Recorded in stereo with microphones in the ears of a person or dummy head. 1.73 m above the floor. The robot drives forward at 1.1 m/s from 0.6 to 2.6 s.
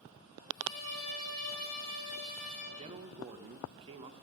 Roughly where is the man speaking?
Right.